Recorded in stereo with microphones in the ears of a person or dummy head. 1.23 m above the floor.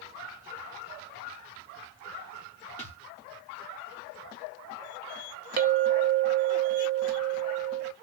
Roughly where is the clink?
Right.